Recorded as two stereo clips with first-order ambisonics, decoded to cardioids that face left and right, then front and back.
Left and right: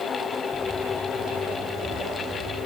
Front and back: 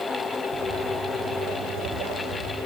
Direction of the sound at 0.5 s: Straight behind.